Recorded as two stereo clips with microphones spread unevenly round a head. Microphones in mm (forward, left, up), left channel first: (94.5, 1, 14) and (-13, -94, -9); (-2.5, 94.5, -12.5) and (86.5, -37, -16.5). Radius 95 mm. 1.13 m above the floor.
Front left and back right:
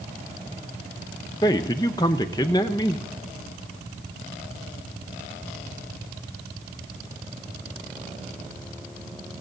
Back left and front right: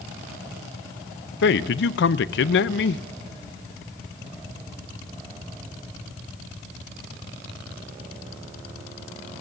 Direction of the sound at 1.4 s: 115° left.